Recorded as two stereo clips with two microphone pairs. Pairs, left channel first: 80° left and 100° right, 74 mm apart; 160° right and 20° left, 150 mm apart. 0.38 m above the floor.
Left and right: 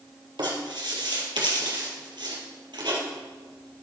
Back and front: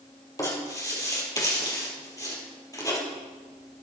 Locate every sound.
0.4 s writing: 95° right, 3.5 m